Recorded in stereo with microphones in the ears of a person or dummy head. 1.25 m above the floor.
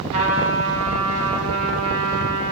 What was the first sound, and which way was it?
A trumpet, 35° right (ahead or behind).